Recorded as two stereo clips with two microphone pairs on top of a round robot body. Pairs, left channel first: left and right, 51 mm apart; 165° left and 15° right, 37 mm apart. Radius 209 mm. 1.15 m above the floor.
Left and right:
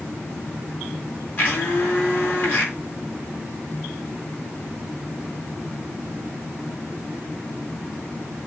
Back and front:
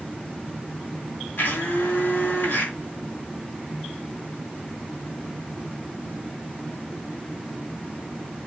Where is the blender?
145° left, 4 m.